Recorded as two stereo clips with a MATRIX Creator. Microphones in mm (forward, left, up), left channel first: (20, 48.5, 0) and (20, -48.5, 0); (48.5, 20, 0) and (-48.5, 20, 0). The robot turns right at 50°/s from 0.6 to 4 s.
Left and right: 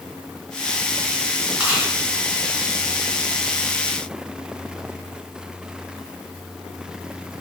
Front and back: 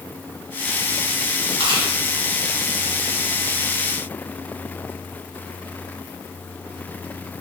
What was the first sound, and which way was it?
Chewing, 170° right.